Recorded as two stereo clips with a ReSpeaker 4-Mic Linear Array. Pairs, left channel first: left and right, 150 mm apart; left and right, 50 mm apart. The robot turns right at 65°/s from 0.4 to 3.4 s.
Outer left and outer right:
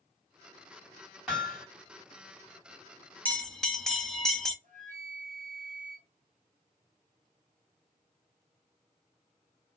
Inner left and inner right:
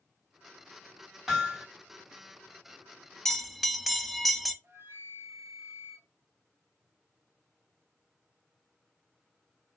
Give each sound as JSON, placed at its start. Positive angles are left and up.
{"t": 1.3, "sound": "hammering", "side_deg": -5, "distance_m": 1.5}
{"t": 3.2, "sound": "a bell", "side_deg": 10, "distance_m": 0.5}
{"t": 4.6, "sound": "a flute", "side_deg": -55, "distance_m": 0.7}